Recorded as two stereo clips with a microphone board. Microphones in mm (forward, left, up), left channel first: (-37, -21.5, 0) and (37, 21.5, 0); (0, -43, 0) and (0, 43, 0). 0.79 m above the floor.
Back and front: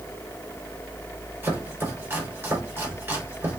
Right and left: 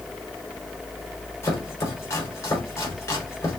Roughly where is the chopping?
Ahead right.